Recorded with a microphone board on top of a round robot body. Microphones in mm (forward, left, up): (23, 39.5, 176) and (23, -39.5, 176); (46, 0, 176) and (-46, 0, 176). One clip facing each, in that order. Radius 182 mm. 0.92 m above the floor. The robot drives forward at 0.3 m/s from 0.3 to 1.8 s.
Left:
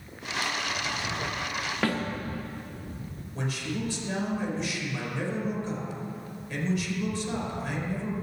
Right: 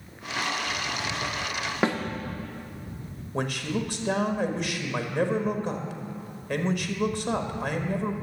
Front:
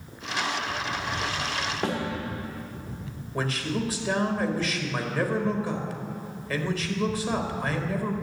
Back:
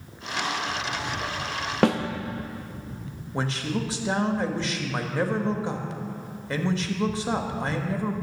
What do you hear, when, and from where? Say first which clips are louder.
1.8 s a snare drum: right 3 dB, back 9 dB; 160° right, 0.9 m
3.3 s a man speaking: right 4 dB, even; 120° right, 1.4 m